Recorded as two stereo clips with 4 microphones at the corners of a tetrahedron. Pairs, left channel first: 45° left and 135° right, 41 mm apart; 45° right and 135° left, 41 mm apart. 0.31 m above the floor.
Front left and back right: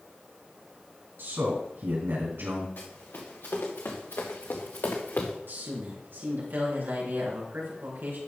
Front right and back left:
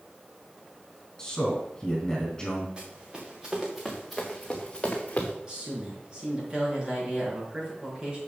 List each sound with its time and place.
1.2 s a man speaking: 120° right, 4 m
2.8 s running footsteps: 70° left, 3 m; by 5.3 s 5° left, 2.0 m
5.5 s a man speaking: 160° right, 4 m